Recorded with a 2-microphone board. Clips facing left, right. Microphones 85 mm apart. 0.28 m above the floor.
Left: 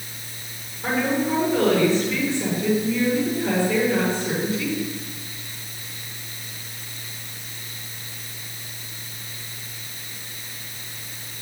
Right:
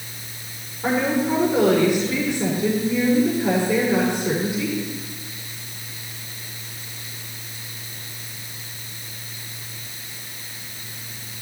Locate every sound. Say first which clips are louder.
0.8 s a woman speaking: right 2 dB; 15° right (ahead or behind), 6 m